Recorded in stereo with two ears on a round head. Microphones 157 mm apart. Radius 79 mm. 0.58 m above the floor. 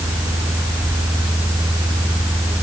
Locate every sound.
Only background noise.